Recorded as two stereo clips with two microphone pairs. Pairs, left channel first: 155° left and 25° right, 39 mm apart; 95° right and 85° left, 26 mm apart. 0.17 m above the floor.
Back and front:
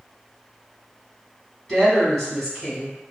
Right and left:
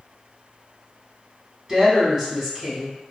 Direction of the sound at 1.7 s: 110° left.